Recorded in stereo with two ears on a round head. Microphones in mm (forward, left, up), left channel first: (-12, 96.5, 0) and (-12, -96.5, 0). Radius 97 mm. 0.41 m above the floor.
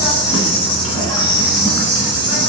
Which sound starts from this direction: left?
An insect, at 0.0 s.